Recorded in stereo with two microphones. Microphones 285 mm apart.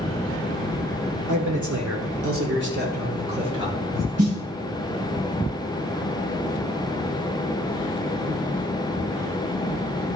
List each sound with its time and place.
1.3 s a man speaking: 80° right, 2.0 m; by 4.1 s 10° right (ahead or behind), 3 m
4.2 s a snare drum: 55° right (ahead or behind), 3.5 m